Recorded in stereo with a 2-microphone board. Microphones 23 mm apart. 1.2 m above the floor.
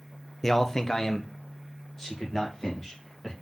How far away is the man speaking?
About 0.6 m.